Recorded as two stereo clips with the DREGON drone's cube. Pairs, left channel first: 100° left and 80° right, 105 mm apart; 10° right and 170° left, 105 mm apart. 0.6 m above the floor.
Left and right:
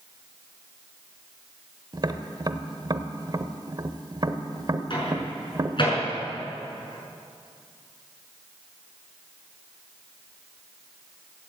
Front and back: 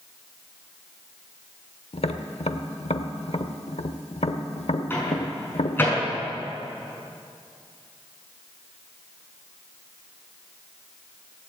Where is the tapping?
25° right, 0.9 m.